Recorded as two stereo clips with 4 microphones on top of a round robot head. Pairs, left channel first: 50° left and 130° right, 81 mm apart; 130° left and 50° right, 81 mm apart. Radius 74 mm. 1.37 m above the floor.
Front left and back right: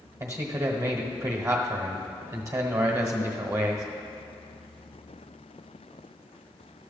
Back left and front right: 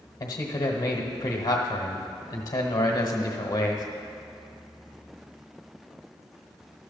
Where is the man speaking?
175° left, 1.1 m.